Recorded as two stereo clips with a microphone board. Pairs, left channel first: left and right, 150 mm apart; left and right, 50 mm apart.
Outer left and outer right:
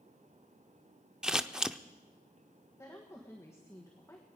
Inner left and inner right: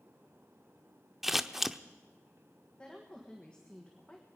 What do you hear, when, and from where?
1.2 s scissors: 5° right (ahead or behind), 0.5 m
2.8 s a woman speaking: 20° left (ahead or behind), 1.5 m